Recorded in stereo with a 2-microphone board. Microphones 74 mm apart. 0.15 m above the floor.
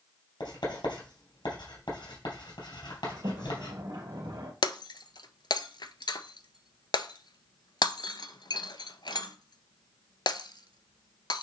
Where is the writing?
70° left (ahead or behind), 3.5 m.